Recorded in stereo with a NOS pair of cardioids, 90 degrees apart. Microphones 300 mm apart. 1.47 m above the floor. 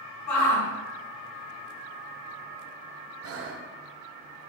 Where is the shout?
70° left, 1.1 m.